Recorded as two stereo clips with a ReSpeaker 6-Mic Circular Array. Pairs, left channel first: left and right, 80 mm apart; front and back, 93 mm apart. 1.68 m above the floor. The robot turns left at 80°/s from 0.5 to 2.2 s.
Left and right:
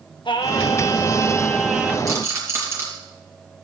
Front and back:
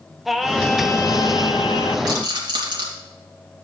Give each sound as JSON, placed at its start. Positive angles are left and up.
{"t": 0.2, "sound": "singing", "azimuth_deg": 90, "distance_m": 1.0}
{"t": 2.1, "sound": "a rattle", "azimuth_deg": -135, "distance_m": 3.0}